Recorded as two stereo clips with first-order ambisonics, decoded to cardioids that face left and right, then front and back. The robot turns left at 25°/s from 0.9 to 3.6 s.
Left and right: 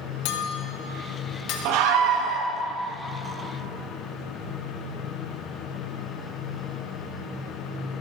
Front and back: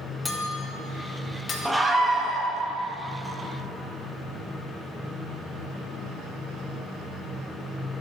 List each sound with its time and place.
0.2 s a clink: 75° left, 1.3 m; by 1.6 s 60° left, 1.3 m
1.6 s a scream: 90° right, 1.5 m; by 2.5 s 115° right, 1.5 m